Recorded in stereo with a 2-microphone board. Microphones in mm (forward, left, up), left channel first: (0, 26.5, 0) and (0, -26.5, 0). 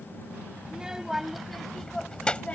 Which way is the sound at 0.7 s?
15° right (ahead or behind).